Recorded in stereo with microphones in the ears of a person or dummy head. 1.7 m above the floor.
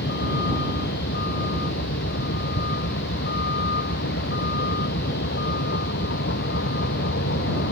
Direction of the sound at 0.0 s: 55° left (ahead or behind).